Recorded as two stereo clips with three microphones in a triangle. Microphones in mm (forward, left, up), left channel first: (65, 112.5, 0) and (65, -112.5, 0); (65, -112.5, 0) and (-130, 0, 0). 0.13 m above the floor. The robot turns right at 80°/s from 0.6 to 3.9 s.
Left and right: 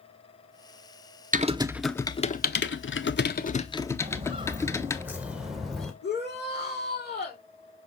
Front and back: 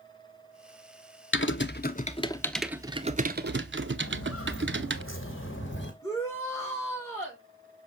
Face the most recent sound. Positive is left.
turn(degrees=50)